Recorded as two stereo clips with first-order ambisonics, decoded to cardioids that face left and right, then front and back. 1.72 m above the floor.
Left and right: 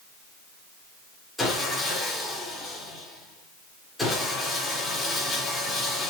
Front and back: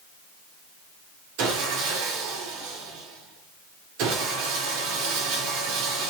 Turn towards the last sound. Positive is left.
turn(degrees=175)